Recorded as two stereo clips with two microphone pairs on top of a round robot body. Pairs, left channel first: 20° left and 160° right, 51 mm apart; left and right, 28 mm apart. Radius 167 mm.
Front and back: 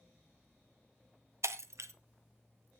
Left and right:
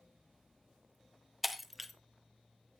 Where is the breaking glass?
Straight behind, 0.9 m.